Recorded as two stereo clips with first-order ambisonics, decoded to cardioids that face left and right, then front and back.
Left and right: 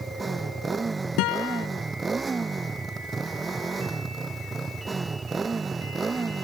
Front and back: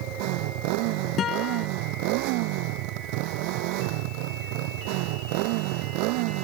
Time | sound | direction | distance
0.0 | a motorcycle | 165° right | ?
1.2 | a guitar | 60° left | ?